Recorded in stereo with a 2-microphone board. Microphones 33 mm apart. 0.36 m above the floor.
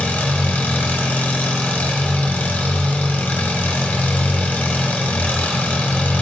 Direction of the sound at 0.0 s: 65° left (ahead or behind).